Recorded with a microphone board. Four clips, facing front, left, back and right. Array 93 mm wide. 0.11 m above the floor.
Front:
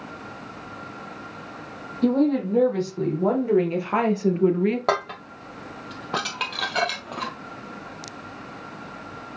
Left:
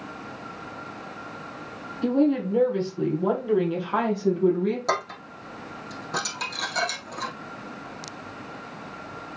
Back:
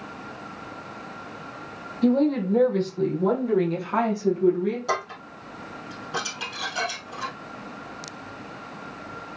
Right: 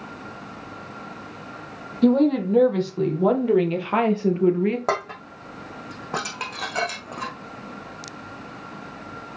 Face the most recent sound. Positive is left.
turn(degrees=-30)